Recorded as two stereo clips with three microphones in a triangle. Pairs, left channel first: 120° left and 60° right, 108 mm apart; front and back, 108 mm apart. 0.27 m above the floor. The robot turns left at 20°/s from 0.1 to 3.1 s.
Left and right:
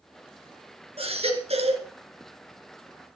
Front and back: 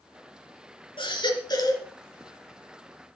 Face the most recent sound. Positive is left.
turn(degrees=-80)